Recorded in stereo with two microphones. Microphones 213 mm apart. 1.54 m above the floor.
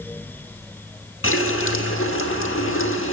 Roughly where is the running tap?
Left.